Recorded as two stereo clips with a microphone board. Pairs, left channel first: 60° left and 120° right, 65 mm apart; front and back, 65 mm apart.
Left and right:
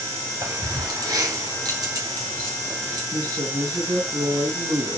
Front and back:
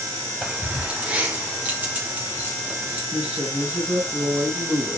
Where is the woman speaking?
115° right, 4 m.